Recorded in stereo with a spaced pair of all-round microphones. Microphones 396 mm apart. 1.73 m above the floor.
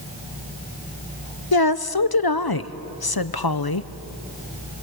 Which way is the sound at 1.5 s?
65° left (ahead or behind).